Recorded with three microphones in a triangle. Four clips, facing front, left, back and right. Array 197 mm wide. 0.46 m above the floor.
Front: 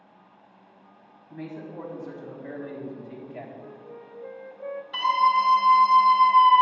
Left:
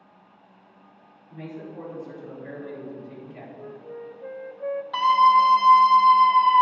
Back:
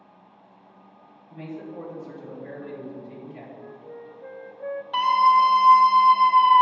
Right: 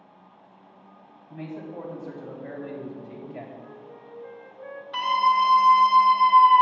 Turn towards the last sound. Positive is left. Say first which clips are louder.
# left 4 dB, back 4 dB
turn(degrees=145)